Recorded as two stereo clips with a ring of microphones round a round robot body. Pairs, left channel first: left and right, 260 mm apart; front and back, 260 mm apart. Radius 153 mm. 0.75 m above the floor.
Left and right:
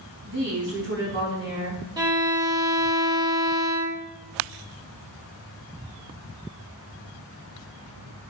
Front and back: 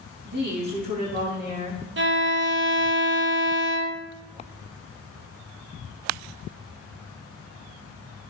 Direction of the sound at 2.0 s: 160° right.